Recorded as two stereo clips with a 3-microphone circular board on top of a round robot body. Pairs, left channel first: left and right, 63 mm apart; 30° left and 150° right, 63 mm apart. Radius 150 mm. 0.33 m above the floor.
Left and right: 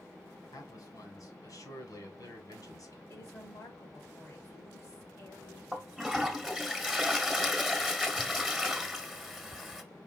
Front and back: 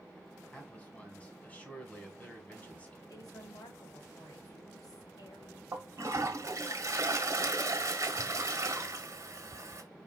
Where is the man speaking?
95° left, 2.5 m.